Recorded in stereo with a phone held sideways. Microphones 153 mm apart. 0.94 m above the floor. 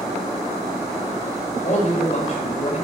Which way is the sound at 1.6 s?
45° left (ahead or behind).